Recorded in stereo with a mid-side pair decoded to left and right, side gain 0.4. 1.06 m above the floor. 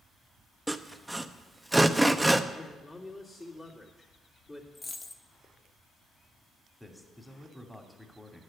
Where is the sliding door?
No sliding door in this recording.